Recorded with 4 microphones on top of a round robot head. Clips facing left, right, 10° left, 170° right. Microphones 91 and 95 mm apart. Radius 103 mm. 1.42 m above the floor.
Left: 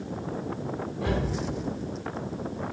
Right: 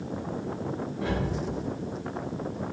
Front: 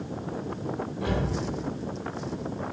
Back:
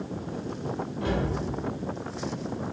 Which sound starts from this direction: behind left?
A cupboard door, at 1.0 s.